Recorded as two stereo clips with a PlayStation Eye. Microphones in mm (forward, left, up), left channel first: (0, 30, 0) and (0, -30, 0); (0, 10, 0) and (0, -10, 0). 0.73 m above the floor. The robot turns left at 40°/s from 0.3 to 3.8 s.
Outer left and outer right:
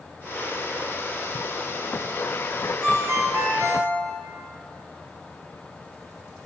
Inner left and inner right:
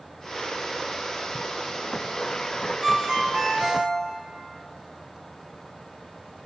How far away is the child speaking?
I don't hear a child speaking.